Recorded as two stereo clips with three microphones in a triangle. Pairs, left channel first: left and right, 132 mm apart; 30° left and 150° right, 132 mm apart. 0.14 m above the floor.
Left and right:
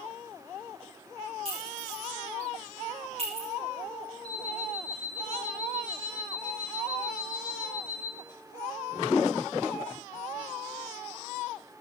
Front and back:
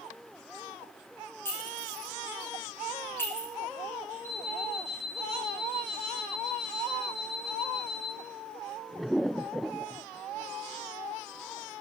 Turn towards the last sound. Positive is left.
turn(degrees=135)